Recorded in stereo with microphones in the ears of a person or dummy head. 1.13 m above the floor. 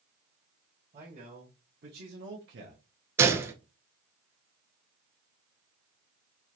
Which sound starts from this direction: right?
A man speaking, at 0.9 s.